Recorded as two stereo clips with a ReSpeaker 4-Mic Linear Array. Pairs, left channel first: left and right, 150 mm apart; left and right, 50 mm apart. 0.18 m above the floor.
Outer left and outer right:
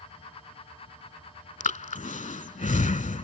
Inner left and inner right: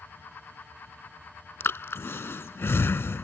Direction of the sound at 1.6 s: 55° left (ahead or behind).